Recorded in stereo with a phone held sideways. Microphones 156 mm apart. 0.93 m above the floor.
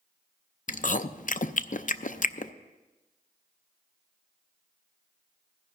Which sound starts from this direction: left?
Chewing, at 0.7 s.